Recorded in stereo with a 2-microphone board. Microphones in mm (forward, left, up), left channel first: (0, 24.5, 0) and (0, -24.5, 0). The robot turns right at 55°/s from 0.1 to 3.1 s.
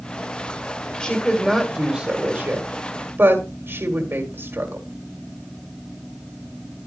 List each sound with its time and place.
1.0 s a woman speaking: 15° left (ahead or behind), 1.8 m; by 4.9 s 50° right (ahead or behind), 1.8 m